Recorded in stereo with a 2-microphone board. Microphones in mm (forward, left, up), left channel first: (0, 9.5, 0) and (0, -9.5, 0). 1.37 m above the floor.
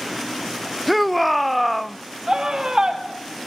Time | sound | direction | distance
0.9 | a shout | 5° right (ahead or behind) | 0.7 m
2.3 | a scream | 35° right (ahead or behind) | 4 m